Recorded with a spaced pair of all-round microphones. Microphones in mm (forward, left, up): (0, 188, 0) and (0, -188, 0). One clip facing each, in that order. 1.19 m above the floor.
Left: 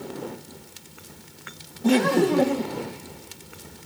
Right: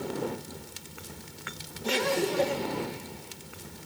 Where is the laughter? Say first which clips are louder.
Left 9 dB; 65° left (ahead or behind), 1.2 m; by 2.9 s 55° left (ahead or behind), 1.5 m.